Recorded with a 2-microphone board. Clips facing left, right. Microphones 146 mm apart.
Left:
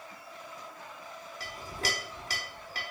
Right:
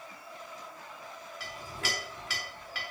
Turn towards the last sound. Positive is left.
turn(degrees=40)  # may be behind; listen again after turning